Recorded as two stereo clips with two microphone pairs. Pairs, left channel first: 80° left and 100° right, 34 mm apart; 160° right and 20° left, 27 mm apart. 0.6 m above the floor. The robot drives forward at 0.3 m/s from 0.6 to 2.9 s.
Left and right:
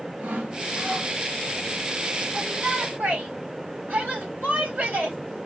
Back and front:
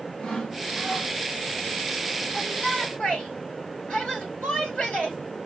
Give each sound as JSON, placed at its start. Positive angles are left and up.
{"t": 0.2, "sound": "sawing", "azimuth_deg": -105, "distance_m": 2.5}
{"t": 2.3, "sound": "a shout", "azimuth_deg": -115, "distance_m": 3.5}